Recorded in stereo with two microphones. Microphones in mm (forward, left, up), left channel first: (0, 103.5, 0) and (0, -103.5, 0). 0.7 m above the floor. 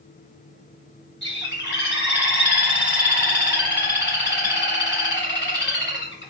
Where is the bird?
60° left (ahead or behind), 0.9 m.